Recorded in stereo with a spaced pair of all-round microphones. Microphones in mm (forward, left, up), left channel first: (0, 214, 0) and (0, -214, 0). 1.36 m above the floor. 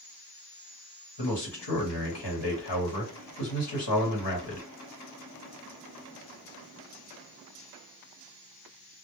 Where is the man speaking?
75° left (ahead or behind), 1.0 m.